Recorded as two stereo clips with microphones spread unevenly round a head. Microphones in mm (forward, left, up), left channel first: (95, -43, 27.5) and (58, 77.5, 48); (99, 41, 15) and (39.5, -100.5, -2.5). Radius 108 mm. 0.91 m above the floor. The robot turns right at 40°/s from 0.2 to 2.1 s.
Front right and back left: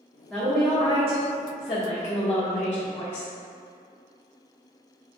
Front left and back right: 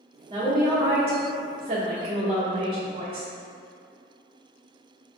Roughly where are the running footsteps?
I don't hear running footsteps.